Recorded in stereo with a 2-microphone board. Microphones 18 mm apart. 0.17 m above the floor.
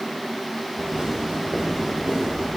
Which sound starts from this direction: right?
Footsteps, at 0.8 s.